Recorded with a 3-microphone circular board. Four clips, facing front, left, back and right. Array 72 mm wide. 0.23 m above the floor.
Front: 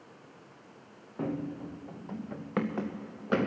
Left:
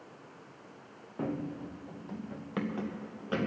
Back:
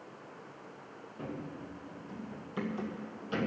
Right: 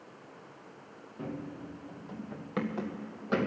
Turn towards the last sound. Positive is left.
turn(degrees=-20)